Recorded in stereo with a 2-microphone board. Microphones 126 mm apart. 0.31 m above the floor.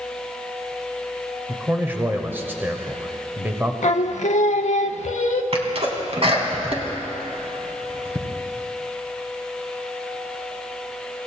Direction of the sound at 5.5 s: 50° right (ahead or behind).